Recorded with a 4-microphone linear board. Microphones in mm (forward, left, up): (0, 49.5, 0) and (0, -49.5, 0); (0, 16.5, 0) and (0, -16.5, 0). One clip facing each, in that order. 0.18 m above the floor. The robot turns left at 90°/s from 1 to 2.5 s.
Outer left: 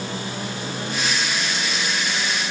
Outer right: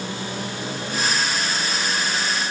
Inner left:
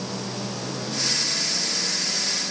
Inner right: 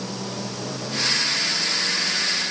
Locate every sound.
Only background noise.